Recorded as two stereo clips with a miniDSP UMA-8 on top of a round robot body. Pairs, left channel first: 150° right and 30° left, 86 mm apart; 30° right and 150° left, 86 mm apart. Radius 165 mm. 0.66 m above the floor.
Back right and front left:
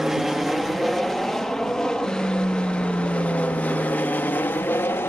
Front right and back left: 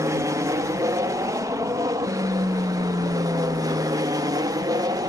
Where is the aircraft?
115° left; by 5.1 s 155° left.